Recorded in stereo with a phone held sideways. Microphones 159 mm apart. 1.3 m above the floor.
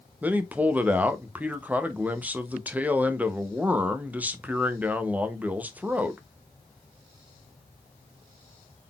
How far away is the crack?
I don't hear a crack.